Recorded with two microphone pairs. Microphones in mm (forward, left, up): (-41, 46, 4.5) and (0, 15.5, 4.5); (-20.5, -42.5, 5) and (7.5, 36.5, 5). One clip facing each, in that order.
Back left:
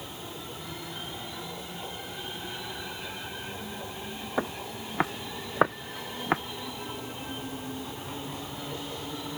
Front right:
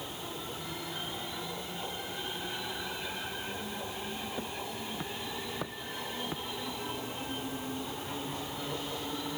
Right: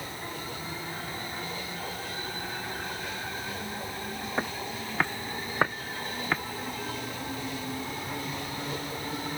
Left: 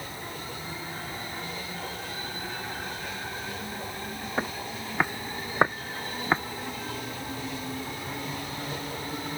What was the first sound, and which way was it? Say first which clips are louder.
Footsteps: back left 6 dB, left 1 dB; 155° left.